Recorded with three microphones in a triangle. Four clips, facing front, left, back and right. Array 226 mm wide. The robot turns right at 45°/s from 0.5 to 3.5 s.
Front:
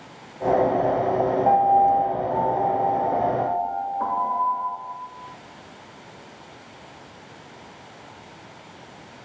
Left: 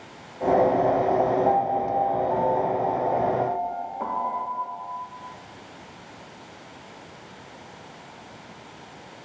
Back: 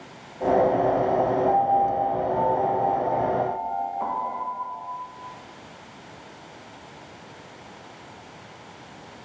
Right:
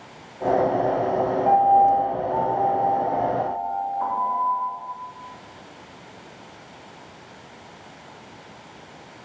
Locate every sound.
1.4 s a piano: 45° right, 1.2 m; by 4.7 s 50° left, 1.2 m